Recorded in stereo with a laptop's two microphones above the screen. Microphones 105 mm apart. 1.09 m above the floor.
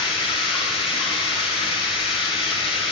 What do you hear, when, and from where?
0.0 s running water: 65° left (ahead or behind), 2.5 m